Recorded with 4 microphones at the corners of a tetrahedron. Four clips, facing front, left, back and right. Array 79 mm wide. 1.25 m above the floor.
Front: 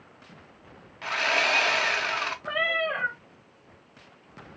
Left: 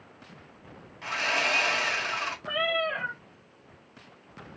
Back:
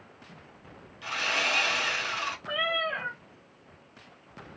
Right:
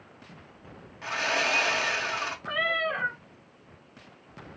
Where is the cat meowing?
20° right, 1.4 m.